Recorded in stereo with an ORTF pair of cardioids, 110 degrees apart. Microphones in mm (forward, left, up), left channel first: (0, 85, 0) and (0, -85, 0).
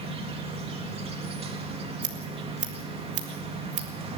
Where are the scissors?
45° right, 3 m.